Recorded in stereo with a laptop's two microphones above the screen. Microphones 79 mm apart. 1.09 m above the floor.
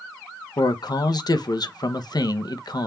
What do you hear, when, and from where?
0.6 s a man speaking: 60° left (ahead or behind), 0.6 m